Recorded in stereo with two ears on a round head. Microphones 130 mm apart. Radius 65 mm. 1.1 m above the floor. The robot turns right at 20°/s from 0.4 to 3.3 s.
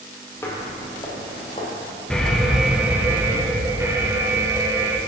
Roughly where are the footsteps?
Centre.